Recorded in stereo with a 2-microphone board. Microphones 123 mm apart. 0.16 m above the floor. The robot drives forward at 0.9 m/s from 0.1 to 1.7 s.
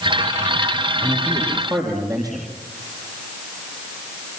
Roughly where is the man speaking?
Right.